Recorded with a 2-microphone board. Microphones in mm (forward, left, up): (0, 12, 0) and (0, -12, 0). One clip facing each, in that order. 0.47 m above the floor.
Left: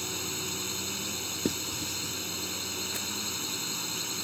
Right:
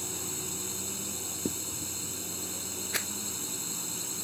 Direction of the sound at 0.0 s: 35° left (ahead or behind).